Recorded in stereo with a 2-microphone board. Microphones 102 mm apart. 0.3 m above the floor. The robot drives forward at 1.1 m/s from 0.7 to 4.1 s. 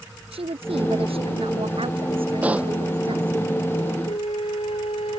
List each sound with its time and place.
0.3 s a woman speaking: 75° right (ahead or behind); by 3.4 s 65° right (ahead or behind)
2.4 s a pop: 15° right (ahead or behind)
4.0 s a flute: 80° left